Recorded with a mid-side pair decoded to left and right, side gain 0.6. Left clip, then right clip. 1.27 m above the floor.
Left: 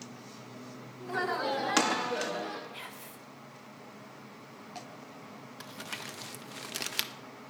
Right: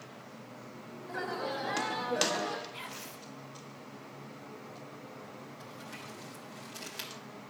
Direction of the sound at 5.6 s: 60° left.